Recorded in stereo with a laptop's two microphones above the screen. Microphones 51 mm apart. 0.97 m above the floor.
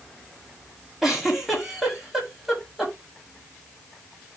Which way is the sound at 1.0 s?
5° right (ahead or behind).